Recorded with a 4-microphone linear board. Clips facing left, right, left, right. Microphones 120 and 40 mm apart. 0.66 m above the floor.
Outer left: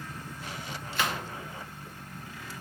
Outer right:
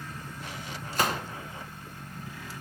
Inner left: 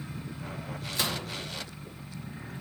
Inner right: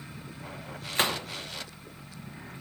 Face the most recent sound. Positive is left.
turn(degrees=-40)  # may be behind; listen again after turning